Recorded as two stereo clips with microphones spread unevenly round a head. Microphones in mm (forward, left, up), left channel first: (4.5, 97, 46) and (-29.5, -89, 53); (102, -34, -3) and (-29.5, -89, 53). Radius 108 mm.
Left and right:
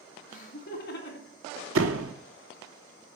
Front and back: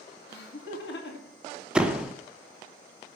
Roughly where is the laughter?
Ahead left.